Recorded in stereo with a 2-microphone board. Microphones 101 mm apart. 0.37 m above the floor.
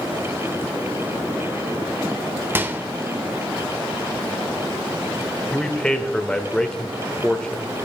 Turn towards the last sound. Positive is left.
turn(degrees=10)  # may be behind; listen again after turning